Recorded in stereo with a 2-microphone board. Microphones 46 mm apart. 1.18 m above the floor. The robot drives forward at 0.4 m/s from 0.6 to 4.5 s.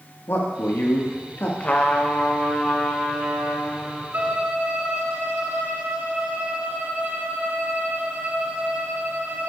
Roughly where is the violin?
Right.